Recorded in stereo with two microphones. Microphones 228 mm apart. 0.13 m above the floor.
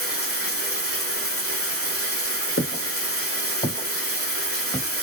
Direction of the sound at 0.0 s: 65° left (ahead or behind).